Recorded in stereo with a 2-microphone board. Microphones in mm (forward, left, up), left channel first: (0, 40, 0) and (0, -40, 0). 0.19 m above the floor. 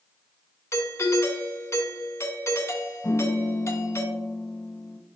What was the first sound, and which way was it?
A doorbell, 35° left (ahead or behind).